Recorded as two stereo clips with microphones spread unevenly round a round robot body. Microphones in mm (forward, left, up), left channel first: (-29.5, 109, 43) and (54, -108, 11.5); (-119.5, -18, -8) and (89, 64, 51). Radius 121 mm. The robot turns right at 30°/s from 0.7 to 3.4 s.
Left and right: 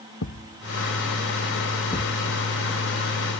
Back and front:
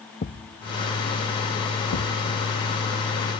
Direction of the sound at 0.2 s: 150° left.